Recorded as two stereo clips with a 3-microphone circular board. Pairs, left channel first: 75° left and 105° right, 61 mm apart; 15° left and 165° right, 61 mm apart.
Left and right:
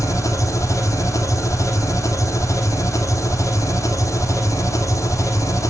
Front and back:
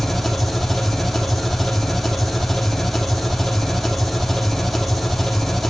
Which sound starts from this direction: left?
An engine running, at 0.0 s.